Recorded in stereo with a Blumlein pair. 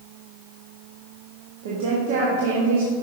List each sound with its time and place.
1.6 s a woman speaking: 55° right, 1.4 m